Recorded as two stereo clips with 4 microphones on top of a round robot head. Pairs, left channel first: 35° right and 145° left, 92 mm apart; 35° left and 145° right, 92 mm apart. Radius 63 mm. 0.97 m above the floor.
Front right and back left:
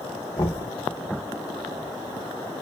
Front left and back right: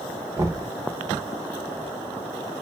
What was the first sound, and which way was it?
Knocking, 90° right.